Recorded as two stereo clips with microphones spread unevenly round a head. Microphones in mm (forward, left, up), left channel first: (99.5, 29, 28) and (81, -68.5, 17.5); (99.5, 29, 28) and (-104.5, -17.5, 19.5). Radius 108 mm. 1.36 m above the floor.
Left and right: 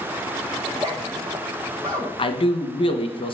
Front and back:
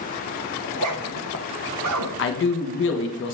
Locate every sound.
0.6 s a zipper: 175° right, 0.8 m
2.2 s a man speaking: 50° left, 1.1 m